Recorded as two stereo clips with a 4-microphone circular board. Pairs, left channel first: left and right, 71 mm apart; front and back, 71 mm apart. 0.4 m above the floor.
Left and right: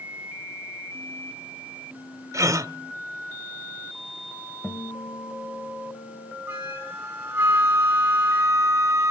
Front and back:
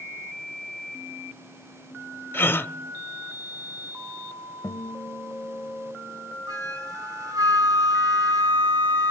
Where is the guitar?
35° left, 1.7 m.